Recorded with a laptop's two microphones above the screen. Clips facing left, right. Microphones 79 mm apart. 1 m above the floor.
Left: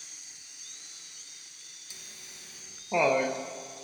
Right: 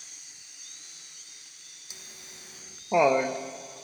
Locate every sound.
1.9 s laughter: 20° right (ahead or behind), 0.7 m; by 3.4 s 15° right (ahead or behind), 0.6 m